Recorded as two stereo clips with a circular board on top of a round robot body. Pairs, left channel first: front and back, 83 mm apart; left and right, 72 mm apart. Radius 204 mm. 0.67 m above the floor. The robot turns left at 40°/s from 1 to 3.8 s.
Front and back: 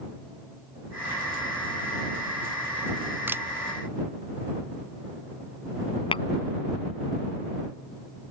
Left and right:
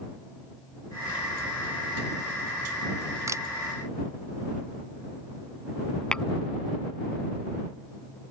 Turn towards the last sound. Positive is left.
turn(degrees=10)